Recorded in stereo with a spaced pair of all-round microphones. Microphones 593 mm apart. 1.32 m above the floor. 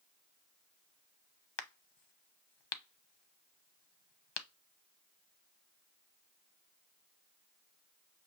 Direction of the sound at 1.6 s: 50° left (ahead or behind).